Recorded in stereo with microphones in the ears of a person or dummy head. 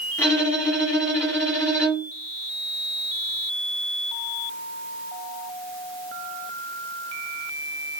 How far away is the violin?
About 1.9 m.